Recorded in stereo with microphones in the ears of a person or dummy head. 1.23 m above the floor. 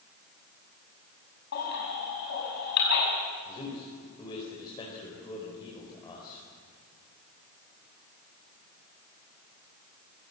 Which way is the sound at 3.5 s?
30° left (ahead or behind).